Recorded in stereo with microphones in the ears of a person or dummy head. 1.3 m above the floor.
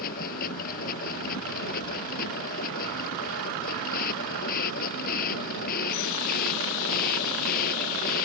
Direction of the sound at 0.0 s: 55° left (ahead or behind).